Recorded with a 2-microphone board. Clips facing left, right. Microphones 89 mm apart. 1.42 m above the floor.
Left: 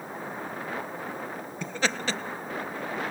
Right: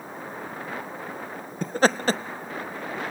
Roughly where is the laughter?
Right.